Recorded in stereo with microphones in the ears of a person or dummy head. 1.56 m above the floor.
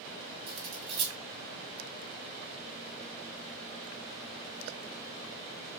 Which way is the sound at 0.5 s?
30° right (ahead or behind).